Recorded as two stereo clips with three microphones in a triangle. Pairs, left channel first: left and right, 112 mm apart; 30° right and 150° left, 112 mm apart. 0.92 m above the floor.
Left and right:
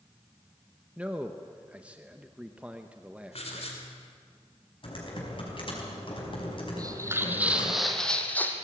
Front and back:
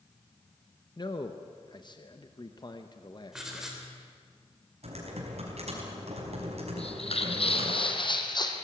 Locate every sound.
1.0 s a man speaking: 15° right, 1.0 m
3.3 s writing: 65° left, 3.5 m
4.8 s typing on a keyboard: 130° left, 5 m
6.8 s footsteps: 40° right, 1.8 m; by 8.6 s 20° left, 2 m